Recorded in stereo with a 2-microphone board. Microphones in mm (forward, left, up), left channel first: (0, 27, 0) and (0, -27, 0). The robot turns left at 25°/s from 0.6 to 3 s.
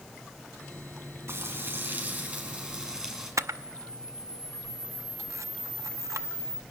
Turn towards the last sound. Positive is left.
turn(degrees=-75)  # may be behind; listen again after turning